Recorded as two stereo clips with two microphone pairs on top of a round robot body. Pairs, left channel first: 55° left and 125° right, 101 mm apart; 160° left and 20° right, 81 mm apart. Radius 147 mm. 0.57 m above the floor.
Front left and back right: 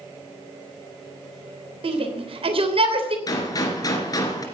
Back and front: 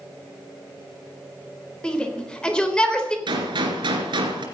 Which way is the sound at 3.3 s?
Straight ahead.